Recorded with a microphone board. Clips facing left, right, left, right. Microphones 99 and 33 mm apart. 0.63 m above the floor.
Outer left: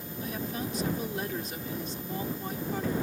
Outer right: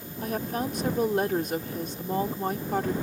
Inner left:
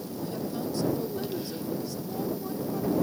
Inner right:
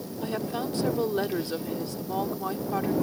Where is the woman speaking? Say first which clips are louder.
Outer right 6 dB, inner right 3 dB; 55° right (ahead or behind).